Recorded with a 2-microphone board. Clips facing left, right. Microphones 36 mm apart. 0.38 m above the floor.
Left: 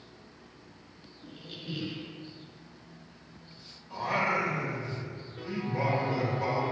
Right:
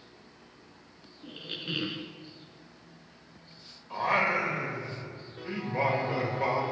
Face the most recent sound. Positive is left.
turn(degrees=-40)  # may be behind; listen again after turning